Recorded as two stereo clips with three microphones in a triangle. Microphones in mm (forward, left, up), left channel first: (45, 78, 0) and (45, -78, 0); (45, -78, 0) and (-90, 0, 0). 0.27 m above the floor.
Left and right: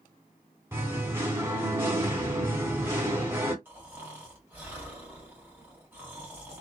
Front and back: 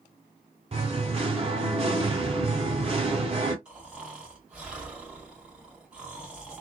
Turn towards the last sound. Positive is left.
turn(degrees=-140)